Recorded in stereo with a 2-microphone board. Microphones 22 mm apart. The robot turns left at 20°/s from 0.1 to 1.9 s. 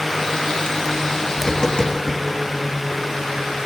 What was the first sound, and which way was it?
Tapping, 30° left (ahead or behind).